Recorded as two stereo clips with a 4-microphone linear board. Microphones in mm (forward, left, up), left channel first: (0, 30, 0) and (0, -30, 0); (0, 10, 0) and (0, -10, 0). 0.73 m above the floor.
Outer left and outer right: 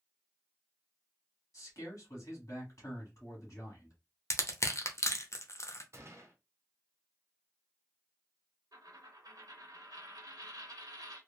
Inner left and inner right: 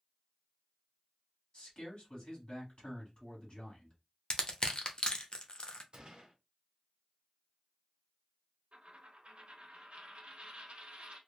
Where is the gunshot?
45° right (ahead or behind), 0.8 m.